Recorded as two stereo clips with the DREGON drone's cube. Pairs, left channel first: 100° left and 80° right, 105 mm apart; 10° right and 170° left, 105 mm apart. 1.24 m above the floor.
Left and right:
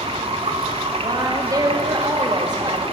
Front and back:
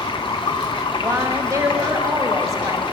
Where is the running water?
55° right, 0.9 m.